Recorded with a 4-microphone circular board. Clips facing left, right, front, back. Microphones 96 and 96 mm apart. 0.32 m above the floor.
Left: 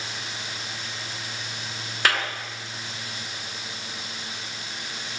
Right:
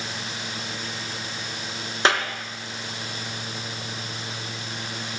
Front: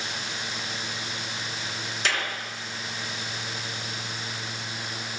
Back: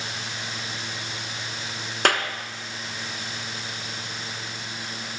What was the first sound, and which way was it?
A clap, 155° right.